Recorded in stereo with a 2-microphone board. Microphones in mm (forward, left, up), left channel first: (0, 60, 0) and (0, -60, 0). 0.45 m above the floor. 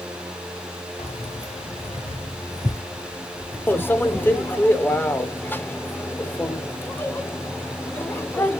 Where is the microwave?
20° left (ahead or behind), 0.7 m.